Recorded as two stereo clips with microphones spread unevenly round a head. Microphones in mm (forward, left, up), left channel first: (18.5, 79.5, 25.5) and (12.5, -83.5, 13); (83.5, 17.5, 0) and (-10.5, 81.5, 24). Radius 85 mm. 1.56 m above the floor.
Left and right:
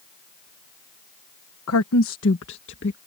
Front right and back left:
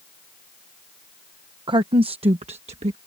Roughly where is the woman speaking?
Left.